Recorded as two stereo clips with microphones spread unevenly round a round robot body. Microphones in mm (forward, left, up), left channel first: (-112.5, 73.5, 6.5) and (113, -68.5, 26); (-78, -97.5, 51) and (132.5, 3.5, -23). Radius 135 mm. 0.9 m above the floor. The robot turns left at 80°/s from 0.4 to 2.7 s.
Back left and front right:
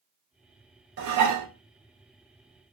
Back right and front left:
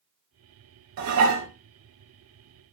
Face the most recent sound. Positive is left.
turn(degrees=-120)